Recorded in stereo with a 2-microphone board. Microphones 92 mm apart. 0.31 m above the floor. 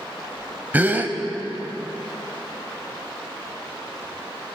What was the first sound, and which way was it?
A gasp, 20° right (ahead or behind).